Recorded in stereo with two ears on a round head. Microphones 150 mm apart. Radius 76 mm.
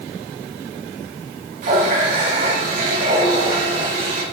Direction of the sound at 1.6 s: 55° right (ahead or behind).